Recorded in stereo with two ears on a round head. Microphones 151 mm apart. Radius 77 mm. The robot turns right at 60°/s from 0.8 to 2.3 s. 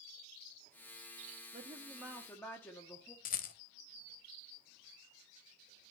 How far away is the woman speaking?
About 0.9 m.